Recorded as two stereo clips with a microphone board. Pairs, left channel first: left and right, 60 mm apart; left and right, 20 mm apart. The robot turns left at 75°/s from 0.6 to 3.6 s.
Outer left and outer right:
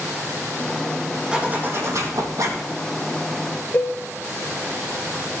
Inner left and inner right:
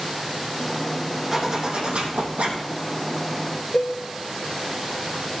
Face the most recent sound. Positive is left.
turn(degrees=40)  # may be behind; listen again after turning